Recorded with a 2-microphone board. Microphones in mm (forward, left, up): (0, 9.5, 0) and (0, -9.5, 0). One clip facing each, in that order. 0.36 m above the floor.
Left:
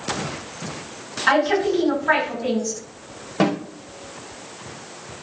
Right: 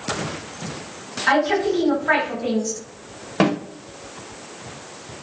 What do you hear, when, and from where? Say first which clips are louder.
1.3 s a woman speaking: even; 10° left (ahead or behind), 1.8 m
3.4 s a snare drum: right 1 dB; 20° right (ahead or behind), 0.9 m